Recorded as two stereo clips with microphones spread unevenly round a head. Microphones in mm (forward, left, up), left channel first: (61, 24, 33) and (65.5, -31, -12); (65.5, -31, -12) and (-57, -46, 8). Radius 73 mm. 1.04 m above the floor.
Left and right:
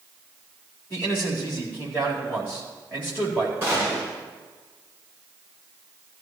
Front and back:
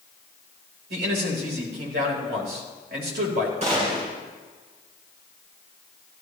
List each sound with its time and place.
0.9 s a man speaking: straight behind, 4 m
3.6 s a gunshot: 145° right, 7 m